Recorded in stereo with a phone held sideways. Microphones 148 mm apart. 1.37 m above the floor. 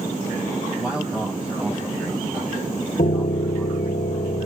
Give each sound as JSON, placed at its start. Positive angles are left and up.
{"t": 0.8, "sound": "a man speaking", "side_deg": -5, "distance_m": 8.5}
{"t": 3.0, "sound": "a piano", "side_deg": 65, "distance_m": 1.0}